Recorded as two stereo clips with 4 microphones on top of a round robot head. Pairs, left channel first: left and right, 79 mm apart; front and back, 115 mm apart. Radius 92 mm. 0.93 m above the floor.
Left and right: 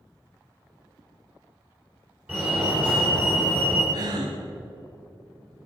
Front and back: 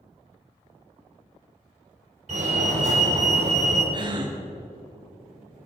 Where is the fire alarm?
165° right, 4.5 m.